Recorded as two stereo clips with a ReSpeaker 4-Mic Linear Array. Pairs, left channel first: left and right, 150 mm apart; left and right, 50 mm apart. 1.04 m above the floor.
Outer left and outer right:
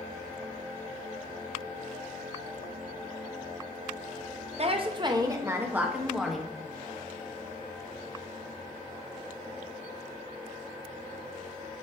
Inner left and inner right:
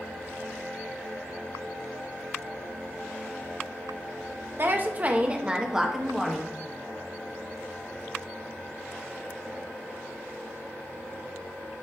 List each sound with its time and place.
4.6 s a woman speaking: 45° right (ahead or behind), 1.0 m; by 6.5 s centre (ahead or behind), 1.4 m